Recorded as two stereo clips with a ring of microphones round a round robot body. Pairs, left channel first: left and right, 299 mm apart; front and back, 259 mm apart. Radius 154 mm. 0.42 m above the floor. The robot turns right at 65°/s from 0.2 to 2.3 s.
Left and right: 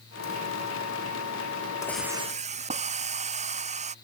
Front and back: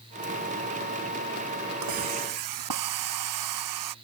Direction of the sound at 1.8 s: 170° left.